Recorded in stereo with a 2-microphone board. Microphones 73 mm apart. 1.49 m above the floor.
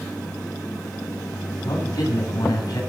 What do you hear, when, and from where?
1.6 s a man speaking: 60° left (ahead or behind), 8 m